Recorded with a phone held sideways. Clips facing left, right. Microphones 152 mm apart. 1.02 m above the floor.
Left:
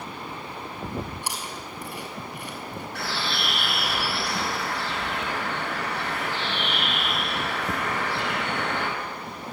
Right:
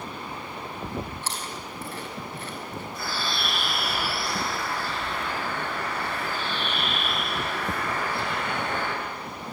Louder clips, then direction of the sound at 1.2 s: Even; 10° left (ahead or behind).